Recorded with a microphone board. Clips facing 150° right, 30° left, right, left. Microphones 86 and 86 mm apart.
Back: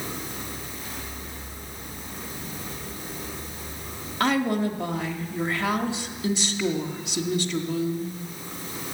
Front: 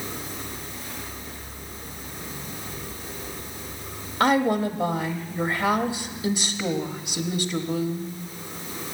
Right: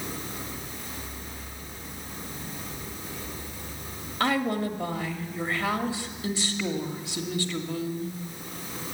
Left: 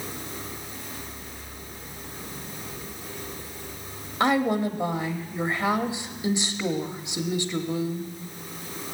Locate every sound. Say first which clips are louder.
4.2 s a woman speaking: front 3 dB, left 4 dB; 70° left, 1.1 m